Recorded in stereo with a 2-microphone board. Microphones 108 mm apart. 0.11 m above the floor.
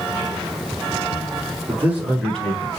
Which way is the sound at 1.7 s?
25° right (ahead or behind).